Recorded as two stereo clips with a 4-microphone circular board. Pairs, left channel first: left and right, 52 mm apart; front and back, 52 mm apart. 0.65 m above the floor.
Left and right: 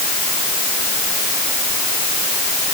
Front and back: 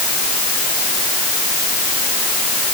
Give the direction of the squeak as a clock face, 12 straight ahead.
No squeak in this recording.